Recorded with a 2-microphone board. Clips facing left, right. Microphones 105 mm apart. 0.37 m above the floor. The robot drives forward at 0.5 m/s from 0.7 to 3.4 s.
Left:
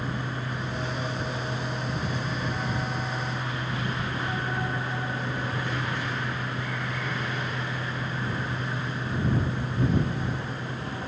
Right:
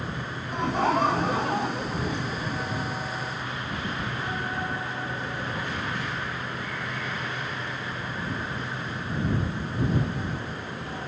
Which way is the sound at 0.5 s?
70° right (ahead or behind).